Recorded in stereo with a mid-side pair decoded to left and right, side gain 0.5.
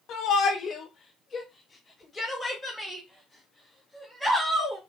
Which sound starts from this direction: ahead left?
A shout, at 0.1 s.